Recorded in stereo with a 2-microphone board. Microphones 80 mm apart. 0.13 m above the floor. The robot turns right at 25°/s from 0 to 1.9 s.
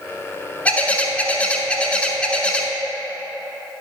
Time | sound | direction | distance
0.7 | a bird | 20° left (ahead or behind) | 0.7 m